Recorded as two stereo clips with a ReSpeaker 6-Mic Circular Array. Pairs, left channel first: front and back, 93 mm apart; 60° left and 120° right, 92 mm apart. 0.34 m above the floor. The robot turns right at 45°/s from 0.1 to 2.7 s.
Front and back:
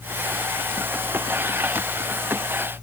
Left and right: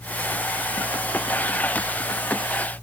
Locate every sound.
Only background noise.